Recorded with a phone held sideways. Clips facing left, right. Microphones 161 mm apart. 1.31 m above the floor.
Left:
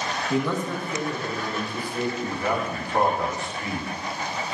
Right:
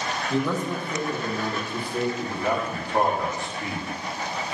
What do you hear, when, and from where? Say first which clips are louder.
0.3 s a man speaking: even; 15° left (ahead or behind), 0.8 m; by 2.1 s 55° right (ahead or behind), 3 m
2.2 s a man speaking: even; 25° right (ahead or behind), 2.5 m